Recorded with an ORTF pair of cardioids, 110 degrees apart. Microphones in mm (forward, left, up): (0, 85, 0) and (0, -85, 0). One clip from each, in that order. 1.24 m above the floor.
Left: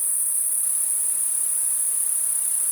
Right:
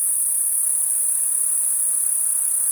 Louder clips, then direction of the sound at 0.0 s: Right 2 dB; 45° right.